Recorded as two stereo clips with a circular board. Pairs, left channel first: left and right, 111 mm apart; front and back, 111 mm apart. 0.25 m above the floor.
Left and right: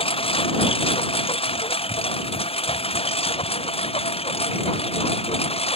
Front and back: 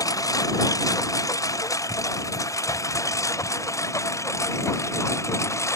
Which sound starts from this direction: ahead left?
A lawn mower, at 0.0 s.